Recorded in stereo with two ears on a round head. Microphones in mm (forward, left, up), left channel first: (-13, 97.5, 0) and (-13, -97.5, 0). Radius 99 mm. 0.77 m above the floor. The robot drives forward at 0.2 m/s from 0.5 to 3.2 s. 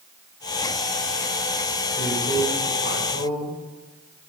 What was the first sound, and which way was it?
A man speaking, 50° left (ahead or behind).